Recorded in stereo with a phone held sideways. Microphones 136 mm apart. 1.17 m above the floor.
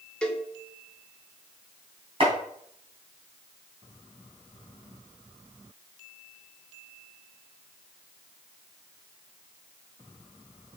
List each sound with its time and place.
0.2 s a cowbell: 10° left (ahead or behind), 0.8 m
2.2 s chopping: 45° right (ahead or behind), 3 m